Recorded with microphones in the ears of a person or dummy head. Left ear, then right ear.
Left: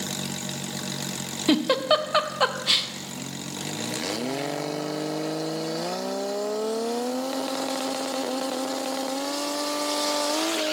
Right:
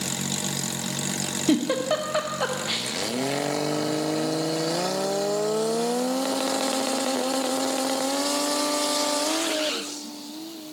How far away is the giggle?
About 0.8 m.